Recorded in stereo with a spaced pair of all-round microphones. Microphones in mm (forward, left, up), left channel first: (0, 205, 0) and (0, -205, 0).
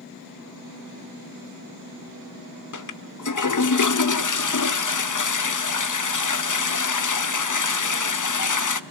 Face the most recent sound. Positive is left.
turn(degrees=50)  # may be behind; listen again after turning